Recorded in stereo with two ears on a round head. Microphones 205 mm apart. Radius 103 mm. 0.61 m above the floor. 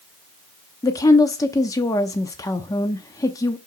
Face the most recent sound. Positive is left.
turn(degrees=15)  # may be behind; listen again after turning